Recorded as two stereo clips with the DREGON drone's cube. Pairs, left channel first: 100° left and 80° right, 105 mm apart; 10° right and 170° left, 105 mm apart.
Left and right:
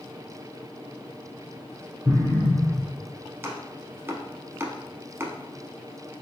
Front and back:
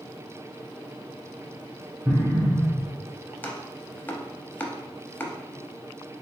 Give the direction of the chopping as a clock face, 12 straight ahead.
2 o'clock.